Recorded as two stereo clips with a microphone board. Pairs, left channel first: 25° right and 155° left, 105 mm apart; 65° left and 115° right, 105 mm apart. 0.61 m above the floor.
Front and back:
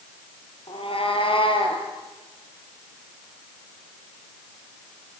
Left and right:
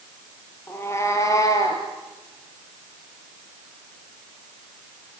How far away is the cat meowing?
About 5 m.